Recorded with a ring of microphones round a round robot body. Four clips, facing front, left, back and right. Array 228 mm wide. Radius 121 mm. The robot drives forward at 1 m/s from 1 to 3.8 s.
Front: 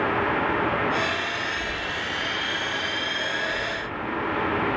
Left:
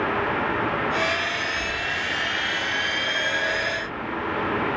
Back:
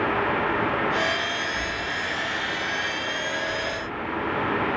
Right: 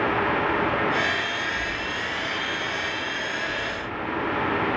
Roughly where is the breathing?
Behind right.